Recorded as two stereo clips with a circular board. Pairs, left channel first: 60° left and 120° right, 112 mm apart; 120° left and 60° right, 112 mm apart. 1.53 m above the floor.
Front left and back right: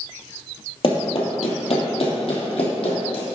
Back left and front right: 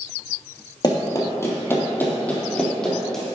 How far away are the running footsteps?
About 2.5 m.